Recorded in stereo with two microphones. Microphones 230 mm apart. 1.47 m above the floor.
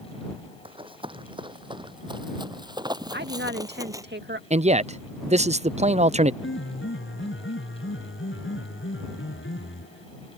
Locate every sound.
0.7 s running footsteps: 20° right (ahead or behind); by 4.0 s 15° right (ahead or behind)
3.1 s a woman speaking: 50° right (ahead or behind)
4.5 s a man speaking: 30° right (ahead or behind)
6.4 s a piano: 60° left (ahead or behind)